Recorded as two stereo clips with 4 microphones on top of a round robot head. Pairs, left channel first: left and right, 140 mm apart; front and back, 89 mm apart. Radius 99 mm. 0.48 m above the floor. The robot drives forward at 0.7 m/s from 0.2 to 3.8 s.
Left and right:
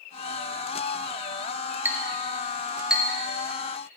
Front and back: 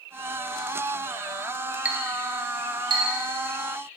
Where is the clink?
145° right, 0.6 m; by 3.0 s 175° right, 1.2 m.